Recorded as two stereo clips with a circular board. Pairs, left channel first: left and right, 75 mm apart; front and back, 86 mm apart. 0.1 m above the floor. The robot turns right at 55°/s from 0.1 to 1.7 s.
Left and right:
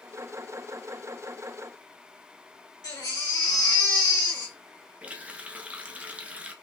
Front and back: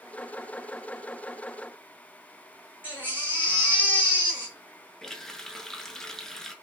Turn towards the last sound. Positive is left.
turn(degrees=-70)